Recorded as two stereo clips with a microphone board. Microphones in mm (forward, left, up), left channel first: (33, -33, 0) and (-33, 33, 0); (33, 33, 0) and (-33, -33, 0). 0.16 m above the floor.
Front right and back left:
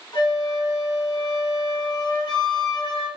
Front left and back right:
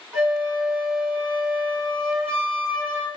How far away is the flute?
About 2.5 m.